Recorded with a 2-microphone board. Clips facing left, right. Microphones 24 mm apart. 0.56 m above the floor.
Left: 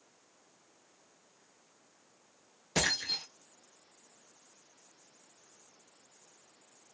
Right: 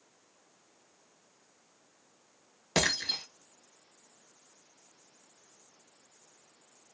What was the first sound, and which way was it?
Breaking glass, 40° right (ahead or behind).